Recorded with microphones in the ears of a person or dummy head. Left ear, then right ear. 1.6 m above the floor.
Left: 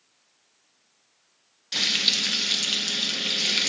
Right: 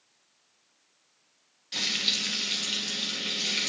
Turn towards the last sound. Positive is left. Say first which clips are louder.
# left 5 dB
turn(degrees=10)  # may be behind; listen again after turning